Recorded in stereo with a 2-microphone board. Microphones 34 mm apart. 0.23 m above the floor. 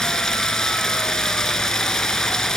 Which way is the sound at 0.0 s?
15° left (ahead or behind).